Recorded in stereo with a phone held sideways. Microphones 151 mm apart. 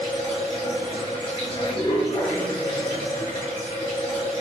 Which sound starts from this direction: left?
Running water, at 0.0 s.